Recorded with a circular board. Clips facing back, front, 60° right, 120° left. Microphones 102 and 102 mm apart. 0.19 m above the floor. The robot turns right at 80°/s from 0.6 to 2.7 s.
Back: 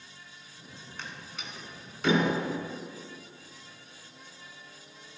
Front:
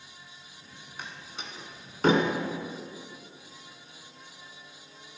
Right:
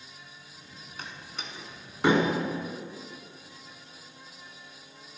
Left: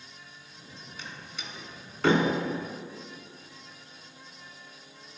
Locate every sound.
1.0 s a door slam: 80° right, 1.6 m; by 2.3 s 25° left, 1.6 m